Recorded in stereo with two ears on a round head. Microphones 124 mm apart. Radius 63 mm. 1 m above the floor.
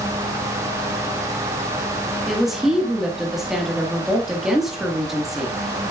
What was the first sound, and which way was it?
A woman speaking, 5° right (ahead or behind).